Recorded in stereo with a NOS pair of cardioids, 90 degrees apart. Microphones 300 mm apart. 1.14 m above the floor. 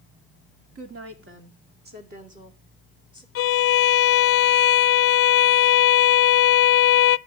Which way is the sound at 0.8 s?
50° right.